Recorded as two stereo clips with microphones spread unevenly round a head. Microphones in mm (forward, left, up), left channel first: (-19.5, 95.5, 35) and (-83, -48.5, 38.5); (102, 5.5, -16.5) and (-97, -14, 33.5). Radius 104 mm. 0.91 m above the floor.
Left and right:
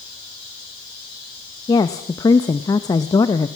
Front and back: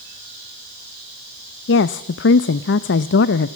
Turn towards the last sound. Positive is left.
turn(degrees=0)